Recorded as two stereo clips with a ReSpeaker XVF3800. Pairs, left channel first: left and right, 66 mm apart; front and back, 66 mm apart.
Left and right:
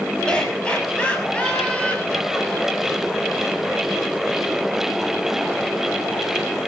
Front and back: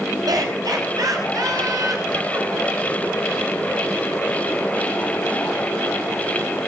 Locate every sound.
0.3 s laughter: 165° left, 6.5 m; by 3.0 s 155° left, 8.5 m